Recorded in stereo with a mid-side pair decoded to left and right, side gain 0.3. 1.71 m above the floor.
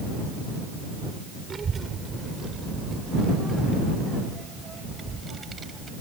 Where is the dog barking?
I don't hear a dog barking.